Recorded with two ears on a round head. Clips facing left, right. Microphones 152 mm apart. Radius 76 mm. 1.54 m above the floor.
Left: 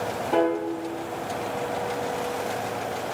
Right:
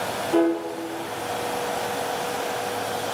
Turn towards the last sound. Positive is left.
turn(degrees=55)  # may be behind; listen again after turning